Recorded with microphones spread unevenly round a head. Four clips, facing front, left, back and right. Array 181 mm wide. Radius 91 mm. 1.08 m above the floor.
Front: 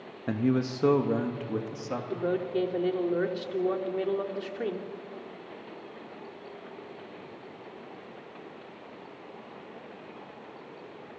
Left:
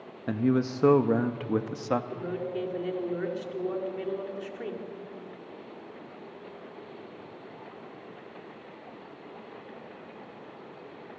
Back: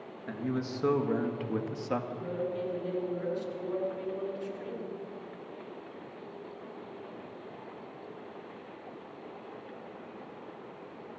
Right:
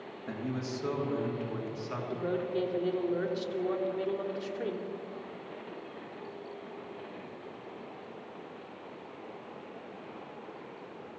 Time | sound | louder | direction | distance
0.3 | a man speaking | left 10 dB, front 7 dB | 40° left | 1.2 m
2.1 | a woman speaking | right 1 dB, front 6 dB | straight ahead | 2.5 m